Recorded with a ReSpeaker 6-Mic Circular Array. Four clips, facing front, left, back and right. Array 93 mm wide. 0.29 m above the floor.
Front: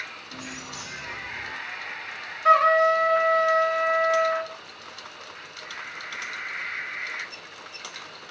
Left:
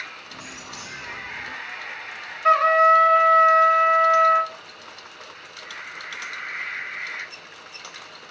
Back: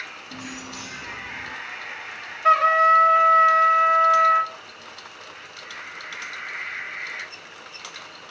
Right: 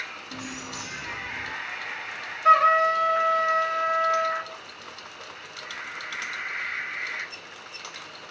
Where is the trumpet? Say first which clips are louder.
Left 2 dB, back 1 dB; 145° left, 2.0 m.